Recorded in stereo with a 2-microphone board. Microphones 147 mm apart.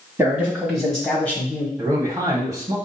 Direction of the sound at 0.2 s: 15° right (ahead or behind).